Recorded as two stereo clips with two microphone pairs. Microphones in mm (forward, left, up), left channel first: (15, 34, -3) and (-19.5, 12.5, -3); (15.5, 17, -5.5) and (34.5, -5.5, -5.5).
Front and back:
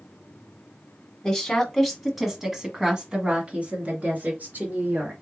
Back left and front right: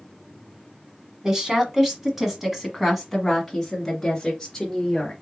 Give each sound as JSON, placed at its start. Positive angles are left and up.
{"t": 1.2, "sound": "a woman speaking", "azimuth_deg": -20, "distance_m": 1.4}